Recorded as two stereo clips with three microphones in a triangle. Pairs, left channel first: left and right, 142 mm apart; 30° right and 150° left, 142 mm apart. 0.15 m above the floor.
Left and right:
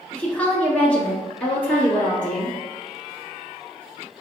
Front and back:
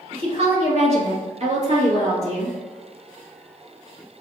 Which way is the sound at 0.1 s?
165° left.